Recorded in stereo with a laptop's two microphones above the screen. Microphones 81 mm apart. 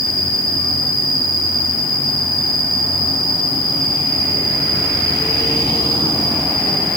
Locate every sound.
0.0 s an insect: 75° left (ahead or behind), 4.5 m